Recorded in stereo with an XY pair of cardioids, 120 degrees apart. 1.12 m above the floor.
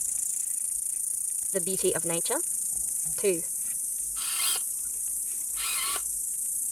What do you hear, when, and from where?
0.0 s an insect: 10° left
1.5 s a woman speaking: 10° right
4.2 s a camera shutter: straight ahead